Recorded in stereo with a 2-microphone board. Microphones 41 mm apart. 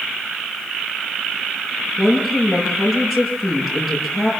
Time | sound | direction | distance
2.0 | a woman speaking | 5° left (ahead or behind) | 8.5 m